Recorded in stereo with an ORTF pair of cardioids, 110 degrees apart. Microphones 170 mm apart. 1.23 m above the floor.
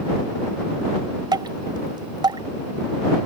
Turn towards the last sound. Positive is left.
turn(degrees=-25)